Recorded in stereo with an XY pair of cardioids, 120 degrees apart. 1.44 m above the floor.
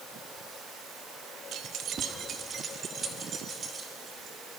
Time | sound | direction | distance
1.5 | keys jangling | 65° right | 1.4 m